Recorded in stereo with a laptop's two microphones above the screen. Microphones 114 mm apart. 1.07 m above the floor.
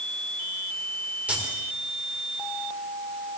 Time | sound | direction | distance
1.3 | keys jangling | 10° right (ahead or behind) | 2.5 m